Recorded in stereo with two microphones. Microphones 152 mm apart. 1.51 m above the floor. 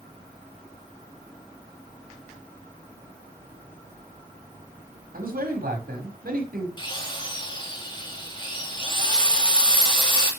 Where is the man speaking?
80° right, 5.5 m.